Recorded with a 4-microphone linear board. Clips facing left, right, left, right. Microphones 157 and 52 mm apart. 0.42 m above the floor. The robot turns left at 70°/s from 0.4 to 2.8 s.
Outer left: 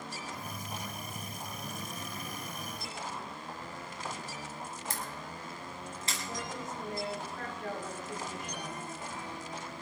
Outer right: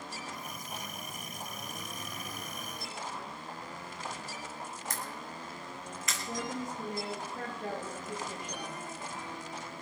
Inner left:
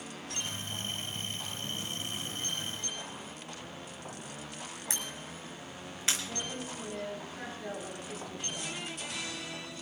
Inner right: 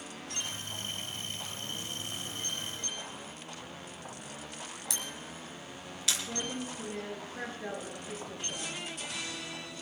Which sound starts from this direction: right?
A woman speaking, at 6.3 s.